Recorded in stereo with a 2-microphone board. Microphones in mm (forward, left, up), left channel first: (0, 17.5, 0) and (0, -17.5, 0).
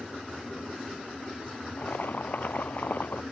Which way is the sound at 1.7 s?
60° left (ahead or behind).